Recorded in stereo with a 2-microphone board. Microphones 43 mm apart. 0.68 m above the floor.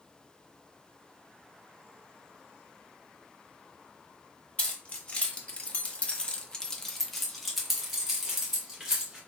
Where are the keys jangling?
30° left (ahead or behind), 1.1 m; by 9.2 s 10° right (ahead or behind), 1.7 m.